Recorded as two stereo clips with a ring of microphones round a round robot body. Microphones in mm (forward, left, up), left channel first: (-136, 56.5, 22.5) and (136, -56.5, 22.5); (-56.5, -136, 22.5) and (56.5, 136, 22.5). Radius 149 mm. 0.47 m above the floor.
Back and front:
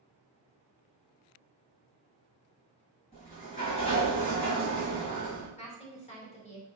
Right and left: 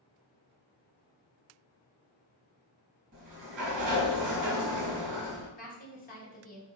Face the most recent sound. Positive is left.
turn(degrees=-150)